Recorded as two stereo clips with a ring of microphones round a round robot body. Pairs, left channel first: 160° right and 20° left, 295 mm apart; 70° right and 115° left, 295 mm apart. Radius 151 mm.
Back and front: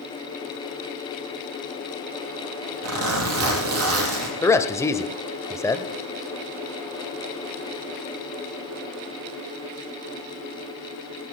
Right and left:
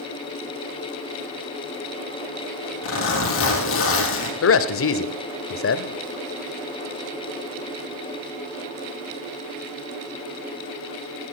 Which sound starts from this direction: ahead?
A zipper, at 2.8 s.